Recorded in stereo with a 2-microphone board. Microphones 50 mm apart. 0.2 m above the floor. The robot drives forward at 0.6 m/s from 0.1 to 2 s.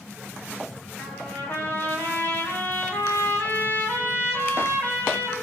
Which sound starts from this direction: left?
A trumpet, at 1.0 s.